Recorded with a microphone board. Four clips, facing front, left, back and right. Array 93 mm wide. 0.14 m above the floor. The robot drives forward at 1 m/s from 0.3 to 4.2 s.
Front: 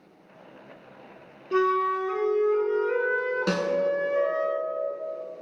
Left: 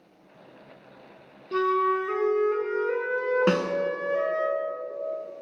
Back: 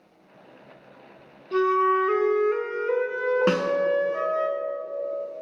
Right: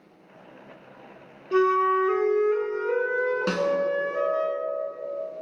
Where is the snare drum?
150° left, 0.9 m; by 3.7 s 160° left, 1.0 m.